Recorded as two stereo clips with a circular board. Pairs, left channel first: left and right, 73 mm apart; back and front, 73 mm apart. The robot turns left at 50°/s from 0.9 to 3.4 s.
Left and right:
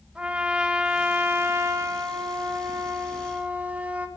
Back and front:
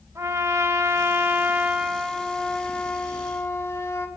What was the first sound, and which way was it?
A trumpet, 25° right.